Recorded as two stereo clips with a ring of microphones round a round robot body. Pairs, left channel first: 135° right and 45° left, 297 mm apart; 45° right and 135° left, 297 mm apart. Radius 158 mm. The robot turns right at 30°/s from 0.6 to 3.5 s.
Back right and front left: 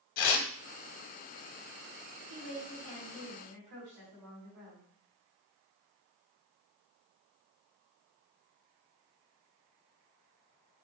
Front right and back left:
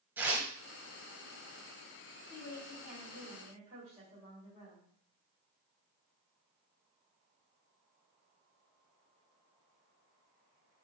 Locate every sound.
0.2 s tearing paper: 140° right, 0.8 m
2.3 s a woman speaking: 35° left, 3 m; by 4.8 s 70° left, 3 m